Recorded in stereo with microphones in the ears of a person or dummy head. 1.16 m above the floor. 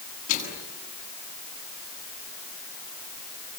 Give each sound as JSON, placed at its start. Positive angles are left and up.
{"t": 0.3, "sound": "a microwave", "side_deg": 55, "distance_m": 8.5}